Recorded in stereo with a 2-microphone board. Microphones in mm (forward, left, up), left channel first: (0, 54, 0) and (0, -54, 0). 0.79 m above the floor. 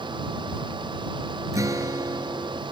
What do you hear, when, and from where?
1.5 s a guitar: 30° right (ahead or behind)